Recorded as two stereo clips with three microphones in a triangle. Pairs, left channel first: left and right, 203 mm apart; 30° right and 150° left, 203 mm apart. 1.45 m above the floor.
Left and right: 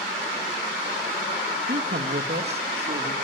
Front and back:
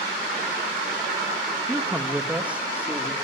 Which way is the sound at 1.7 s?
125° right.